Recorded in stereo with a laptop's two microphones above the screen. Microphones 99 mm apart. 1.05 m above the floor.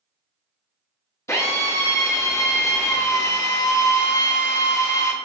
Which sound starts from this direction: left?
A drill, at 1.3 s.